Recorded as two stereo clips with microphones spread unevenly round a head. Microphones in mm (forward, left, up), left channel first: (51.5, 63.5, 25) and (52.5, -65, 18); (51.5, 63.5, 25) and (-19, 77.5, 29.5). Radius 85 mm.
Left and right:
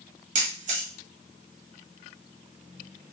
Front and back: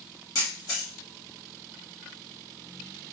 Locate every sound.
0.3 s a camera shutter: 65° right, 1.1 m